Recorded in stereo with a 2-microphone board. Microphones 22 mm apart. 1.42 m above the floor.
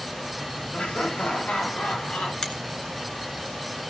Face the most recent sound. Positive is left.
turn(degrees=45)  # may be behind; listen again after turning